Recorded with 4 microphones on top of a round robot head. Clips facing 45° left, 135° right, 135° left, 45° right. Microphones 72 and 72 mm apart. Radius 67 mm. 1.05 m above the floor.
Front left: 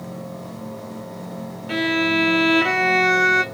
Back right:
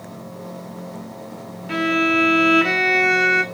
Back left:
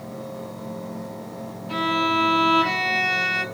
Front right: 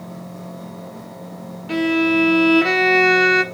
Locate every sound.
1.7 s a violin: 50° right, 1.3 m